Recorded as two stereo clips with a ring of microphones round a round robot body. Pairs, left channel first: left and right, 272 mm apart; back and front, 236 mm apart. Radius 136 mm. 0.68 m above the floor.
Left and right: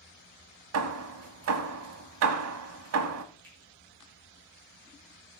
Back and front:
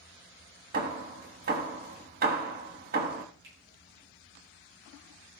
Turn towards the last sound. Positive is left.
turn(degrees=5)